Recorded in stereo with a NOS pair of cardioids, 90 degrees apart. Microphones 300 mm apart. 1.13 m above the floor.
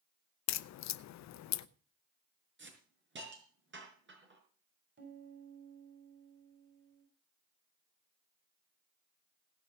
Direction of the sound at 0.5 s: 65° left.